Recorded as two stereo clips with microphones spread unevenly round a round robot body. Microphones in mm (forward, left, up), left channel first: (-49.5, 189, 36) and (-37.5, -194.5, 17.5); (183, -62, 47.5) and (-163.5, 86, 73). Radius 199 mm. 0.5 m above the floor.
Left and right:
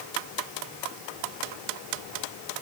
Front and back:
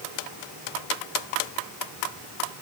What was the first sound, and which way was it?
Only background noise.